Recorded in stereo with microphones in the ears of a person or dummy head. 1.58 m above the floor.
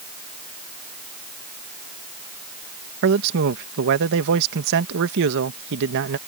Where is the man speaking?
65° right (ahead or behind).